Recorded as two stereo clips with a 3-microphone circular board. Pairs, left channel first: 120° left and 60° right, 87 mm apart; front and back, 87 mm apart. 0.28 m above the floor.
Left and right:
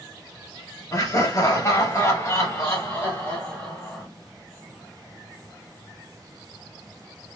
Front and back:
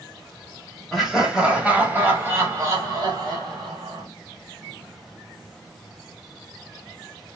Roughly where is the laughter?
Left.